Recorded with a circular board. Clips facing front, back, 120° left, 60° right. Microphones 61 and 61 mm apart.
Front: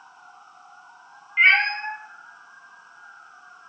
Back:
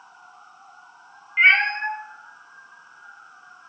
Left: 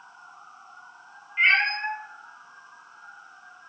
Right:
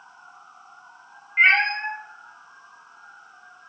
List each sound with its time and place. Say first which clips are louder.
1.4 s a cat meowing: back 1 dB, right 3 dB; 95° right, 0.8 m; by 3.7 s 155° left, 1.0 m